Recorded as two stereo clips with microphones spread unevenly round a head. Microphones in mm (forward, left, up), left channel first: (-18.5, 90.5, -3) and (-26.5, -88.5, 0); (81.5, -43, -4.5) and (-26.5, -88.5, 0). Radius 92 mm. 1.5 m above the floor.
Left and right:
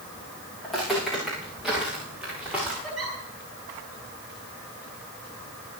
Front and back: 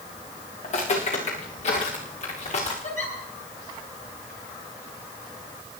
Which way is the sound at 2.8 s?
Straight ahead.